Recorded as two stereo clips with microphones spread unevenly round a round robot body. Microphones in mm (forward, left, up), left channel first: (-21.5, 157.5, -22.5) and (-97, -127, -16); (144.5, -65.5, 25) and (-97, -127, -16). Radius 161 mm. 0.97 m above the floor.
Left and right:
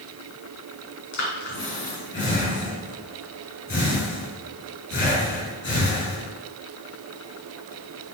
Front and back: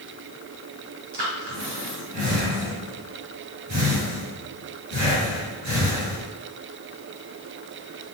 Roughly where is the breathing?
Behind left.